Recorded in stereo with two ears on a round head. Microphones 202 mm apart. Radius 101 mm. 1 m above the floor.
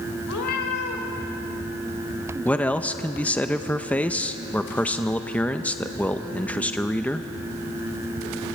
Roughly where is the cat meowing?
Left.